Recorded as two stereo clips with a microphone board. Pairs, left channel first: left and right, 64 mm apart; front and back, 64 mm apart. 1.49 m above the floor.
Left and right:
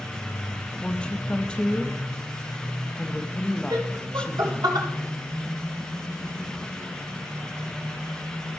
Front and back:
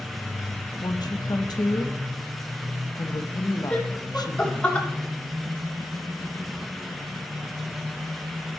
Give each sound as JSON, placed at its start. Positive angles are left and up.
{"t": 0.8, "sound": "a woman speaking", "azimuth_deg": 15, "distance_m": 0.9}
{"t": 3.7, "sound": "laughter", "azimuth_deg": -70, "distance_m": 2.0}